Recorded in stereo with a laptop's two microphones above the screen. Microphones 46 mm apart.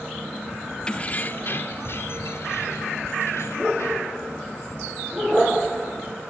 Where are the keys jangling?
20° left (ahead or behind), 1.2 m; by 4.2 s 75° left (ahead or behind), 5.5 m.